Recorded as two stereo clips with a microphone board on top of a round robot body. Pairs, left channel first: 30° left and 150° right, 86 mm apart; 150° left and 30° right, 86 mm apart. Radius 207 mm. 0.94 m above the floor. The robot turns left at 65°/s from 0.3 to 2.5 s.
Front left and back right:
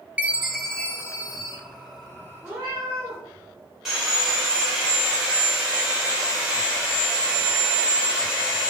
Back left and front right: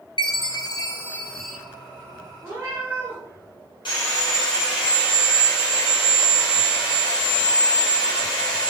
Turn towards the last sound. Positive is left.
turn(degrees=120)